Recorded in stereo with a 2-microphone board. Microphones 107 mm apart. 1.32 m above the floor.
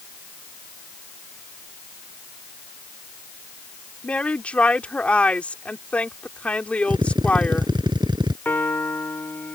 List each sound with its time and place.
4.0 s a woman speaking: 10° left (ahead or behind)
6.9 s a drill: 45° right (ahead or behind)
8.4 s a piano: 20° left (ahead or behind)